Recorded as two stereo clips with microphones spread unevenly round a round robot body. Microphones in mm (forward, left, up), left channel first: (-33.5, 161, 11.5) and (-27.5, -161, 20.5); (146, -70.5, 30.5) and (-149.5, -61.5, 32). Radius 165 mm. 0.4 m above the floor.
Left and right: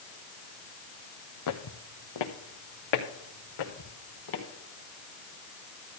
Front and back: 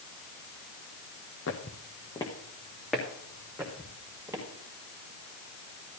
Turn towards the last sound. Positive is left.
turn(degrees=100)